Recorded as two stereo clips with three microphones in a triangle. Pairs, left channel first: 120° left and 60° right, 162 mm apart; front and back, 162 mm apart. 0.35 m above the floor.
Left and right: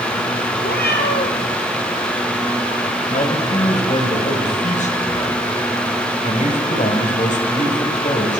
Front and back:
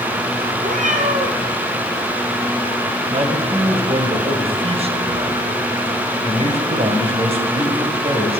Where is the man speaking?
140° left, 2.5 m.